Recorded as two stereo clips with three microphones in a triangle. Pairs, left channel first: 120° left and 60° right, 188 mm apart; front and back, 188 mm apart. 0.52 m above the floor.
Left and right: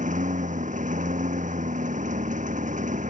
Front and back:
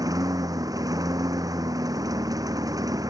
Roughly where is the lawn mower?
Right.